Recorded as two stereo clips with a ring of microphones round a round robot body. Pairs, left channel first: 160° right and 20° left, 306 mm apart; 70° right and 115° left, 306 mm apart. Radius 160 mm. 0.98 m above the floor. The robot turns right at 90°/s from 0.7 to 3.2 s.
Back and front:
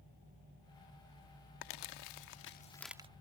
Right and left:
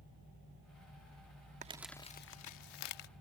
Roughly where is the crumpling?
Behind.